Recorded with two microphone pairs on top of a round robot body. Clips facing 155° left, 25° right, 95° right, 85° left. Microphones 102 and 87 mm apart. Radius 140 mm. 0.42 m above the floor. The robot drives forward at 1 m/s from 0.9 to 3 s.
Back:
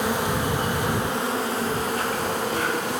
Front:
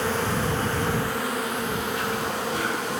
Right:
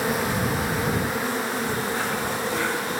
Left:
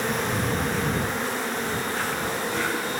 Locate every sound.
0.0 s an insect: 160° right, 1.3 m; by 3.0 s 175° right, 3 m